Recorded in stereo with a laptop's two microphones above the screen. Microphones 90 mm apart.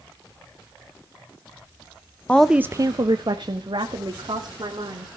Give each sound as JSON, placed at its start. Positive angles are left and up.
{"t": 2.3, "sound": "a woman speaking", "side_deg": 15, "distance_m": 0.5}